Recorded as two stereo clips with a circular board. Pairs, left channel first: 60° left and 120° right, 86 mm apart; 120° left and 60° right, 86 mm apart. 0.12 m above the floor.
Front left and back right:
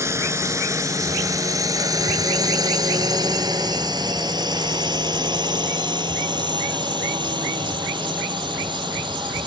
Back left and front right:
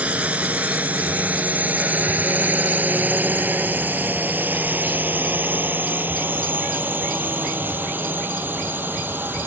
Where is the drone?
120° right; by 9.5 s 125° right.